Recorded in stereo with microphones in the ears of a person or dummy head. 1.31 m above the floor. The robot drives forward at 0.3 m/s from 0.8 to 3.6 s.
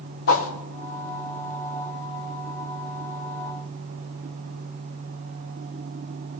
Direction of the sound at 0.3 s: 70° left (ahead or behind).